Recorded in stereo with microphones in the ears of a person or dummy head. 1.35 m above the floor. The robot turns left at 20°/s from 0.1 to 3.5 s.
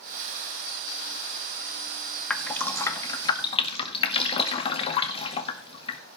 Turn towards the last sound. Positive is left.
turn(degrees=30)  # may be behind; listen again after turning